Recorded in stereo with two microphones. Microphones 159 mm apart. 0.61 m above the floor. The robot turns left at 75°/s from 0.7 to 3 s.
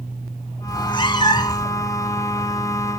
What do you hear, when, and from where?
0.7 s a cat meowing: 25° left (ahead or behind), 0.5 m; by 1.7 s 20° left (ahead or behind), 0.5 m